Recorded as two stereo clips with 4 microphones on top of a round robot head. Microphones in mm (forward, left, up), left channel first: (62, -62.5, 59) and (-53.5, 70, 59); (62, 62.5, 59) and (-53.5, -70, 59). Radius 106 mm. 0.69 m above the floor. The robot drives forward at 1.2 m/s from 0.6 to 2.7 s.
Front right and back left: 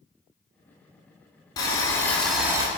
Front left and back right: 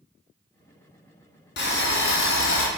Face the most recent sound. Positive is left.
turn(degrees=70)